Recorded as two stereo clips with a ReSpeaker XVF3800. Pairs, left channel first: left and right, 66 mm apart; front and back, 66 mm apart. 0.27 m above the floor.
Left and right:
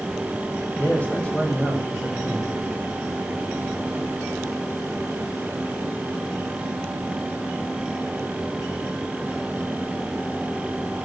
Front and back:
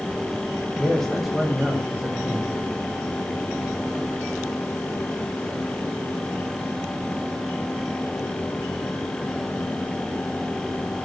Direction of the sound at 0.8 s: 60° left.